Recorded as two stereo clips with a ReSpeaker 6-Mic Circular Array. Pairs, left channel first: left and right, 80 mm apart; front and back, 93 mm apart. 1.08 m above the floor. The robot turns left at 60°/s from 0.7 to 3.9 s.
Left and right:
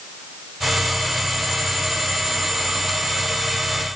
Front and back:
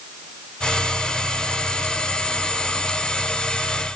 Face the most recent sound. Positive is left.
No sound to turn to.